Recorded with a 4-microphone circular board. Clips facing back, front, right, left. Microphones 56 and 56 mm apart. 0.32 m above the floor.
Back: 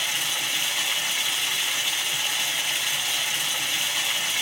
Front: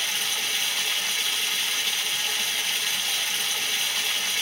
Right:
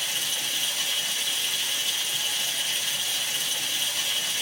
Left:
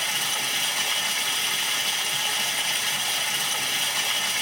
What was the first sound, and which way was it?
Running water, 105° left.